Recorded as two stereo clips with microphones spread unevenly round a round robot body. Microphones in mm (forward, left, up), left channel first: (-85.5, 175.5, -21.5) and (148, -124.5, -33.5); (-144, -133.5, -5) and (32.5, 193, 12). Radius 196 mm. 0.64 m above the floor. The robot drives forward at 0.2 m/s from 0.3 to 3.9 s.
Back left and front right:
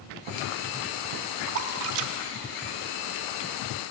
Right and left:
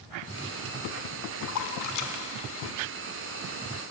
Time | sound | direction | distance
1.5 | a splash | 60° right | 0.9 m